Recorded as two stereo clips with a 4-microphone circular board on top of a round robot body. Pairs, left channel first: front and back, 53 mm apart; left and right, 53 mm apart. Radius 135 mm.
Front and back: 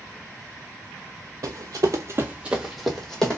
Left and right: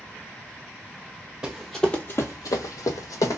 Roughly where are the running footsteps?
Behind.